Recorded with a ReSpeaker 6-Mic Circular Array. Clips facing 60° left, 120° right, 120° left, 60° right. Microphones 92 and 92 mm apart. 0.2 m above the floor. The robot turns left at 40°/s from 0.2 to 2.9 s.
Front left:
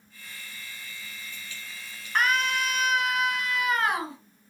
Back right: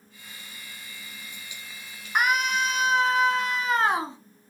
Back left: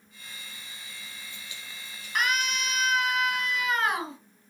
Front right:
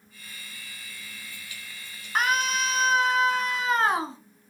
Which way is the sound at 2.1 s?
55° right.